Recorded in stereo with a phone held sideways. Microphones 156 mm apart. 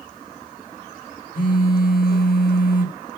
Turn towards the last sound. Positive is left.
turn(degrees=65)  # may be behind; listen again after turning